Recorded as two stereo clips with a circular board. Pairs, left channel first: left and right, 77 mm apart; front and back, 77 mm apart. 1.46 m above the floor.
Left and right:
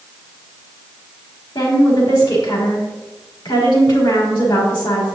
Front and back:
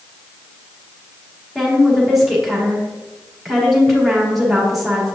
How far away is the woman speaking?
About 3 m.